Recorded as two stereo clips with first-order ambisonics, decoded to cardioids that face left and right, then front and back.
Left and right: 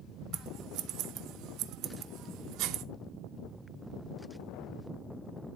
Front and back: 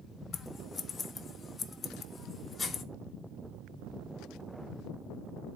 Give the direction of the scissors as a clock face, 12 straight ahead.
2 o'clock.